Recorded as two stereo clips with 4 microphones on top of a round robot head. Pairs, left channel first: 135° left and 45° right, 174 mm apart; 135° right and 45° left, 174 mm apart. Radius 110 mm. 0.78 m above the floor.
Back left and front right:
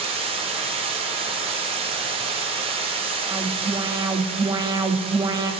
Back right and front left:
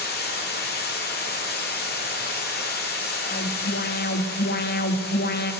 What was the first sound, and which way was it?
Running water, 105° right.